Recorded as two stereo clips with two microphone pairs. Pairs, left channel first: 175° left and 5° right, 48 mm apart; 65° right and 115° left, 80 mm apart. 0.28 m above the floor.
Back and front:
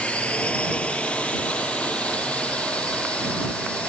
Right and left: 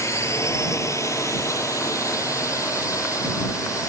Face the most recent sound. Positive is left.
turn(degrees=-115)